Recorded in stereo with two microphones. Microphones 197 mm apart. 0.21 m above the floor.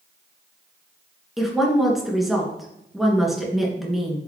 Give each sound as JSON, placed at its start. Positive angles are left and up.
{"t": 1.4, "sound": "a woman speaking", "side_deg": 0, "distance_m": 2.5}